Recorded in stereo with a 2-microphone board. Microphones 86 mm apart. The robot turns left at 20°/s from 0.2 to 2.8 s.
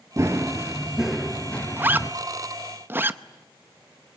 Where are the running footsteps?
35° right (ahead or behind), 1.8 m; by 2.1 s 30° left (ahead or behind), 1.6 m.